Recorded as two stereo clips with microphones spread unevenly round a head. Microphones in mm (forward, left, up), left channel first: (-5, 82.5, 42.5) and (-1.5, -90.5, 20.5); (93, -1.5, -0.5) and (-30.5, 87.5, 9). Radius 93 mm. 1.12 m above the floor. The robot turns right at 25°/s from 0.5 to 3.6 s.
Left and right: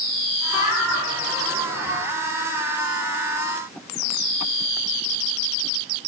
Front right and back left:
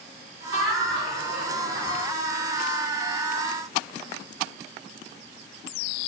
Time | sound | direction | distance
0.5 | laughter | 145° left | 1.5 m